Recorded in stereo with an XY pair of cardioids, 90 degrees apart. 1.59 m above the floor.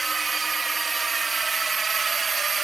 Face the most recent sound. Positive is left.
turn(degrees=-45)